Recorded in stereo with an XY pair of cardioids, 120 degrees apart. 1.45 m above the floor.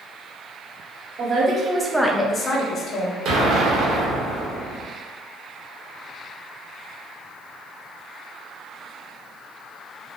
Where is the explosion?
70° right, 0.8 m.